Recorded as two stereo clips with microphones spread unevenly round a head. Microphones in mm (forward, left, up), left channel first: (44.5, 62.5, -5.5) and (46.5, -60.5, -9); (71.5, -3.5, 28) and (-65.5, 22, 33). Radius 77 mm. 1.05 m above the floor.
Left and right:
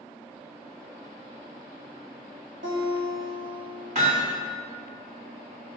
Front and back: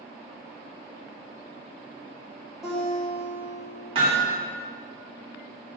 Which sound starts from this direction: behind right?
Hammering, at 4.0 s.